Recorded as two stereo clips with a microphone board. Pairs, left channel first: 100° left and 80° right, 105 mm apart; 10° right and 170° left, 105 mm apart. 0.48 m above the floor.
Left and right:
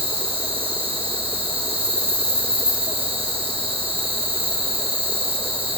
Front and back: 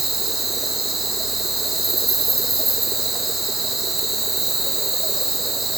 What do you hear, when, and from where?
0.0 s an insect: 100° right, 5 m